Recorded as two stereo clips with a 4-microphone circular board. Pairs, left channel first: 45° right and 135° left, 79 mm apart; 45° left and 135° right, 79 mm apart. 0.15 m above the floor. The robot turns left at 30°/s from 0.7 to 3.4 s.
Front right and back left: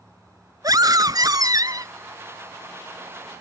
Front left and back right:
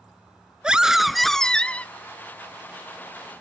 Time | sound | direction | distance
0.6 | a scream | 150° left | ?